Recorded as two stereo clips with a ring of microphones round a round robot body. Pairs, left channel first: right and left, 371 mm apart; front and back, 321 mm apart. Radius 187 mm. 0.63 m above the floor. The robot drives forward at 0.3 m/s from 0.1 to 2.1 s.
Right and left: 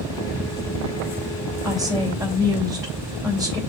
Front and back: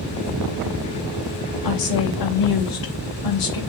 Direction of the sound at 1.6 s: Straight ahead.